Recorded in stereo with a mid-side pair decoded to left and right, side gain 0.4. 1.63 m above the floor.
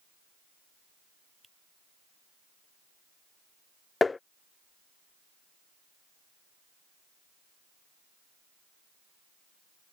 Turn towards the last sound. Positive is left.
turn(degrees=30)